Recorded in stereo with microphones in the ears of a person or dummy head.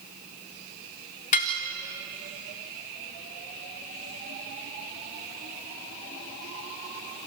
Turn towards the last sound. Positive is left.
turn(degrees=35)  # may be behind; listen again after turning